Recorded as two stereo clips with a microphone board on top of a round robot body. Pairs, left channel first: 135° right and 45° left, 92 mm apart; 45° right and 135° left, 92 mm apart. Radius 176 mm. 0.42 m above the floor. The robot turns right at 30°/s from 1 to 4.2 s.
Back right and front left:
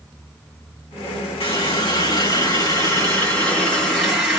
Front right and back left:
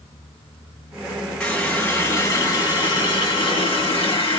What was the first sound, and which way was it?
A running tap, 125° right.